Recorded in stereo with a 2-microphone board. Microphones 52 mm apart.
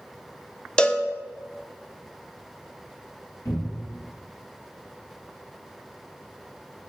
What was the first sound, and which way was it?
A cowbell, 15° left (ahead or behind).